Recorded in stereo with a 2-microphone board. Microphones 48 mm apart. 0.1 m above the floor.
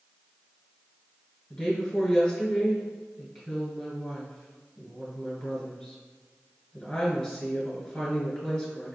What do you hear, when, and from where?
1.5 s a woman speaking: 10° left (ahead or behind), 1.3 m